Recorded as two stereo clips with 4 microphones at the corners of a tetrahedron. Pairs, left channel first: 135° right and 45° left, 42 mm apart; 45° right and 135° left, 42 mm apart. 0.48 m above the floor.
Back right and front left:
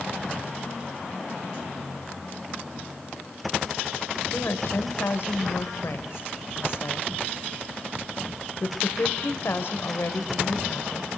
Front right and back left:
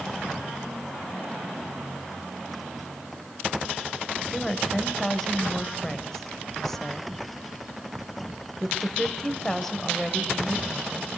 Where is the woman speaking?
130° right, 1.8 m.